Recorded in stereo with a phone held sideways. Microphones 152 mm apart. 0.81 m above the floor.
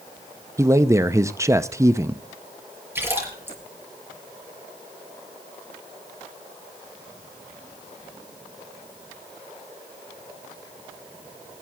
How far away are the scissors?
No scissors in this recording.